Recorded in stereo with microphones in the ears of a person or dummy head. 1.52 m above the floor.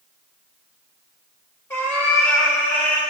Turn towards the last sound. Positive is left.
turn(degrees=15)  # may be behind; listen again after turning